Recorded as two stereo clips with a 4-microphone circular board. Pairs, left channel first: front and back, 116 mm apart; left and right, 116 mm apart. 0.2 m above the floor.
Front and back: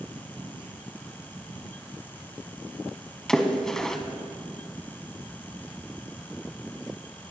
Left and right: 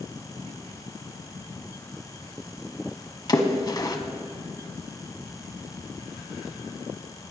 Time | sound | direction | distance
3.3 | a splash | 80° left | 1.1 m